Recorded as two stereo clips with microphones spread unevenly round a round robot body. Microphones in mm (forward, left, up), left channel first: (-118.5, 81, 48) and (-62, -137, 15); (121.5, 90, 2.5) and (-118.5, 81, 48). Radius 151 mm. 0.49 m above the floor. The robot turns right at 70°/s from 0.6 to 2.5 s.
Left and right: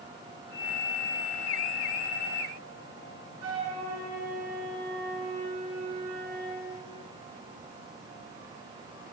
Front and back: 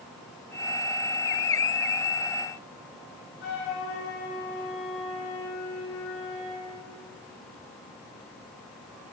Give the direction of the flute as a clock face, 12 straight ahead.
2 o'clock.